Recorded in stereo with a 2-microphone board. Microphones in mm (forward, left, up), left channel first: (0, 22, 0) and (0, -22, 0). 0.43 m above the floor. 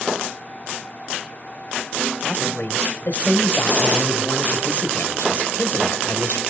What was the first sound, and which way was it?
A woman speaking, 50° left (ahead or behind).